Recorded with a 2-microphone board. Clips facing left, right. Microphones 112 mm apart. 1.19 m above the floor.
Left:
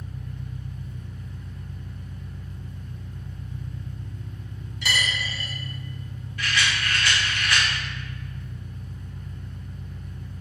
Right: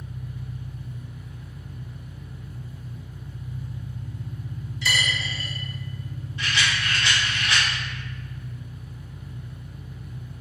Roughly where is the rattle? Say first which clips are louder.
Even; right.